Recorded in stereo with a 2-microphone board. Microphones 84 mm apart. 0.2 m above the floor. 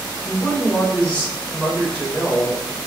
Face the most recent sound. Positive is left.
turn(degrees=15)  # may be behind; listen again after turning